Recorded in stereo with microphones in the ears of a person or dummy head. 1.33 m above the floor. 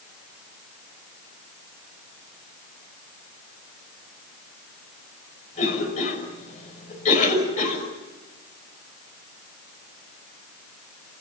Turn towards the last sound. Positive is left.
turn(degrees=45)  # may be behind; listen again after turning